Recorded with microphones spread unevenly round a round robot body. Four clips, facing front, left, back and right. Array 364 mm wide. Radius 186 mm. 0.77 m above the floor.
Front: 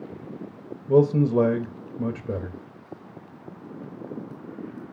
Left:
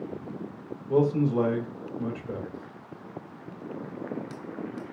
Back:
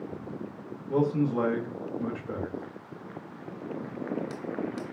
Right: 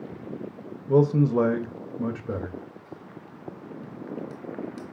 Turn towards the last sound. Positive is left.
turn(degrees=-20)